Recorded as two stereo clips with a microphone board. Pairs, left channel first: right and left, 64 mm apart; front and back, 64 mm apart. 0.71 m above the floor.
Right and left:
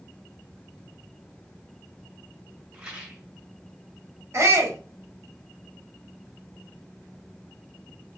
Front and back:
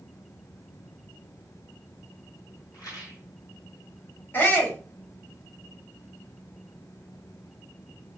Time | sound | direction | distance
2.7 | a rattle | 15° left | 1.4 m
4.3 | a shout | 55° left | 1.5 m